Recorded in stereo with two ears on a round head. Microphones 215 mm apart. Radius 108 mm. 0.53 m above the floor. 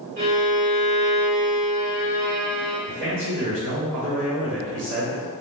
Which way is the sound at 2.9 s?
50° right (ahead or behind).